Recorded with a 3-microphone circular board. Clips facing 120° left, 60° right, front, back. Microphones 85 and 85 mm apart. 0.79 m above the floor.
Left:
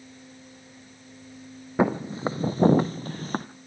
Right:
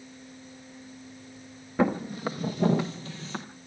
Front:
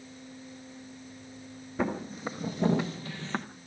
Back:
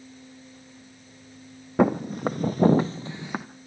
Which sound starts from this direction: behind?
Footsteps, at 1.8 s.